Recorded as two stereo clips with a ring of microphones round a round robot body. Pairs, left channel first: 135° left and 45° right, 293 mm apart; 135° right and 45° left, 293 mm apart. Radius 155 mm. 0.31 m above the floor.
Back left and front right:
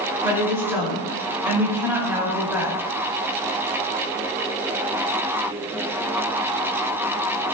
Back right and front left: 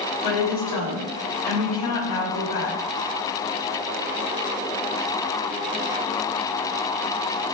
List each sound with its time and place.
0.2 s a woman speaking: 130° right, 4.5 m